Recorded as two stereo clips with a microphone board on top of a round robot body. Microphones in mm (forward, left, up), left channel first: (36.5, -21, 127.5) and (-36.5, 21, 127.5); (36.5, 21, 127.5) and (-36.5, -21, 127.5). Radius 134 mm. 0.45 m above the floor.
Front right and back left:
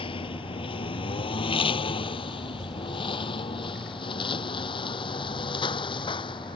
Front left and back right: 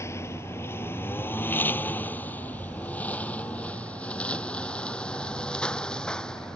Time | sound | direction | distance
0.0 | a lawn mower | 30° right | ?